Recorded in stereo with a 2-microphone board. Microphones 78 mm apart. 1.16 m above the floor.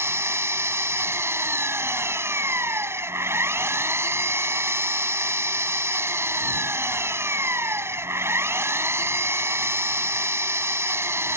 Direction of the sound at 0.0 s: 35° right (ahead or behind).